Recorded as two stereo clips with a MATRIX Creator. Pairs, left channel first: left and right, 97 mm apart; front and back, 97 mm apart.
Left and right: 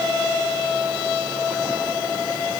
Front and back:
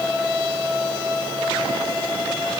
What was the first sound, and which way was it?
Only background noise.